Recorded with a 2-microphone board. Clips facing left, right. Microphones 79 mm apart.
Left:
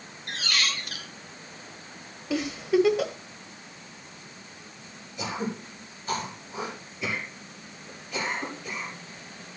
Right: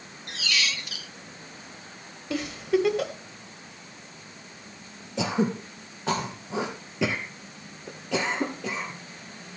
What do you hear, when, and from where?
0.3 s a squeak: 45° left (ahead or behind), 0.5 m
2.3 s a giggle: centre (ahead or behind), 1.4 m
5.2 s throat clearing: 80° right, 3 m